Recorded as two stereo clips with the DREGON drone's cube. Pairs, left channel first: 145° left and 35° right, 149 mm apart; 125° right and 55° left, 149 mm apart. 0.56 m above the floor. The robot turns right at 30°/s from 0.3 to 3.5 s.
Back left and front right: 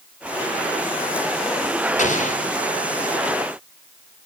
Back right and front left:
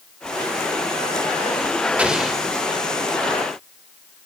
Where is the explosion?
135° left, 2.5 m; by 2.4 s 150° left, 2.5 m.